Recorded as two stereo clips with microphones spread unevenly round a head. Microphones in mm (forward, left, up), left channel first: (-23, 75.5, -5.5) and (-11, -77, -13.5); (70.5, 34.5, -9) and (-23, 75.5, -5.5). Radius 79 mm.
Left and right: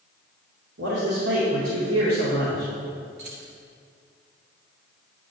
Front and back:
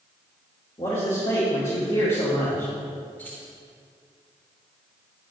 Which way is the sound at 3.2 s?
105° right.